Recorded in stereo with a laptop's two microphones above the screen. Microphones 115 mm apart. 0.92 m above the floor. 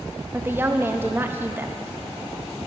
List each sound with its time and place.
0.3 s a woman speaking: 20° right (ahead or behind), 0.8 m